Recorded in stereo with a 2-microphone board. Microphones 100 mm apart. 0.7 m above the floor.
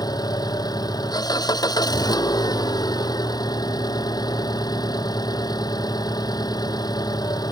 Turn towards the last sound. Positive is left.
turn(degrees=40)  # may be behind; listen again after turning